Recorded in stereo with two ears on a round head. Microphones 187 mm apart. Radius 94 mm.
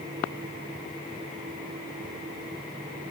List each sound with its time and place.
Only background noise.